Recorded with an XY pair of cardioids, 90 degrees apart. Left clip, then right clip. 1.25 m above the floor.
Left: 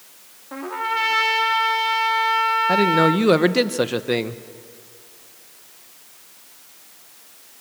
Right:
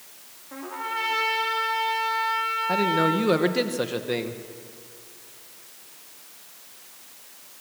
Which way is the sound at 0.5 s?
55° left.